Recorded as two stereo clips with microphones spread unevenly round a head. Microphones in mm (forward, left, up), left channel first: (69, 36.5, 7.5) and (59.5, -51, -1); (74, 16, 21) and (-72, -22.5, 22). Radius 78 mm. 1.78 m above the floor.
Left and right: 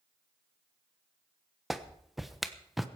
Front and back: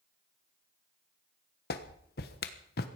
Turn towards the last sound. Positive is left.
turn(degrees=-5)